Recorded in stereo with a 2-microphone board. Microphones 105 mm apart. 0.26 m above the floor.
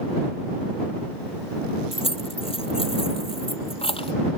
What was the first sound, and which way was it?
Keys jangling, 60° left (ahead or behind).